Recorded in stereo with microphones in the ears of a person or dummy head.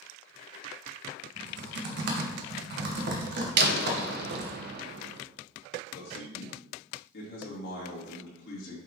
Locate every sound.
1.4 s typing on a keyboard: 60° right (ahead or behind), 1.2 m
3.6 s a door slam: 60° right (ahead or behind), 0.8 m
5.9 s a man speaking: 70° left (ahead or behind), 2.5 m